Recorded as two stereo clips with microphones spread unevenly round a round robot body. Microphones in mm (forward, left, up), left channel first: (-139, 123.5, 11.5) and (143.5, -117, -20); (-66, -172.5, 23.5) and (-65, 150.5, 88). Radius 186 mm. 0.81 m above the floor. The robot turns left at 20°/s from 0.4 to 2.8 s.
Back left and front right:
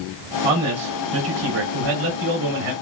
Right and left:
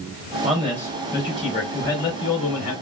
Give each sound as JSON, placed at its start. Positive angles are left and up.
{"t": 0.4, "sound": "a man speaking", "azimuth_deg": 0, "distance_m": 2.5}